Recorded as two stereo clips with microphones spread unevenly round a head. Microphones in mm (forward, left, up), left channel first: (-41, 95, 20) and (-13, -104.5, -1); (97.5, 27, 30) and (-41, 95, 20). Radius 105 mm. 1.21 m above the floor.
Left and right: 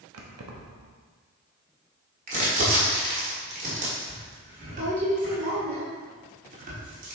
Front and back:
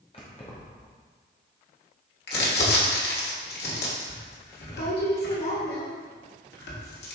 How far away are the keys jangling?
About 1.0 m.